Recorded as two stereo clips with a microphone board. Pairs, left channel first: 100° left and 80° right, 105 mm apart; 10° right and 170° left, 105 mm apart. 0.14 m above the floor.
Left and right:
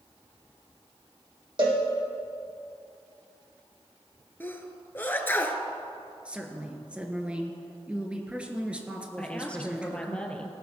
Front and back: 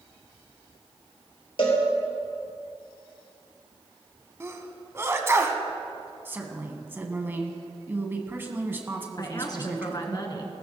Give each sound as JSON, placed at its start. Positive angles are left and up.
{"t": 1.6, "sound": "a cowbell", "azimuth_deg": -40, "distance_m": 3.0}
{"t": 4.4, "sound": "a sneeze", "azimuth_deg": 145, "distance_m": 1.1}
{"t": 6.2, "sound": "a woman speaking", "azimuth_deg": -145, "distance_m": 1.4}
{"t": 9.2, "sound": "a woman speaking", "azimuth_deg": 25, "distance_m": 1.8}